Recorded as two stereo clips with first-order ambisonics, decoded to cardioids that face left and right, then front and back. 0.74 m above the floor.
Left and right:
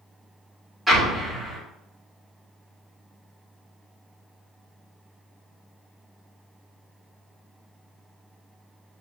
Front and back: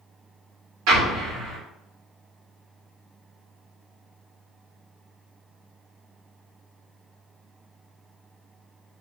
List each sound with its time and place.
0.9 s an explosion: 175° left, 0.9 m